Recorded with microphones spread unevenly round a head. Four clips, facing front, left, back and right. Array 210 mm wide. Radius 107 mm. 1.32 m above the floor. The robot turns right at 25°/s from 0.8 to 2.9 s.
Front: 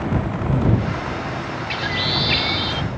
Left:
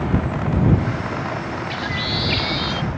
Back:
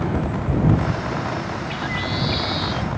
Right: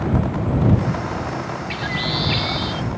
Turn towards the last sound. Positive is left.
turn(degrees=15)